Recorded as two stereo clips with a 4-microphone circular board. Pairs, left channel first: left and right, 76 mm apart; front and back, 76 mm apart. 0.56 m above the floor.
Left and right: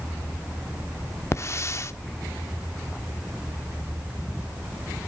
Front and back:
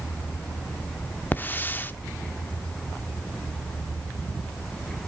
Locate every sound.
1.3 s a hiss: 55° left, 0.7 m